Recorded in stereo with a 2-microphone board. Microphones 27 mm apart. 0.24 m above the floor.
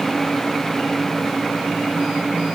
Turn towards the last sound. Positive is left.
No sound to turn to.